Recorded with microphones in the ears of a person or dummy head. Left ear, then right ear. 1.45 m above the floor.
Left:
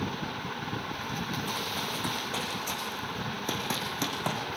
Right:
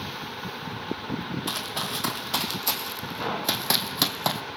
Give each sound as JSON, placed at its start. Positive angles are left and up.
{"t": 1.5, "sound": "running footsteps", "side_deg": -50, "distance_m": 3.5}